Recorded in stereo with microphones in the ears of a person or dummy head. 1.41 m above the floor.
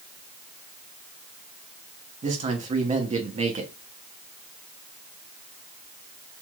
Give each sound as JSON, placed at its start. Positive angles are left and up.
{"t": 2.2, "sound": "a man speaking", "side_deg": -35, "distance_m": 0.7}